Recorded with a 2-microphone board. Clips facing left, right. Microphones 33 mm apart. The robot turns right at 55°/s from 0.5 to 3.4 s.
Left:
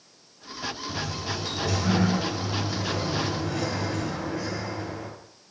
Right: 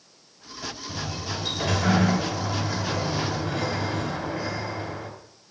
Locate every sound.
0.9 s a sliding door: 165° right, 2 m; by 5.1 s 30° right, 2 m